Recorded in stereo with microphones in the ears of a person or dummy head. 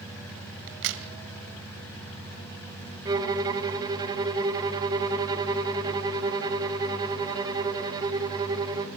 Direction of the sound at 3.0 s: 25° right (ahead or behind).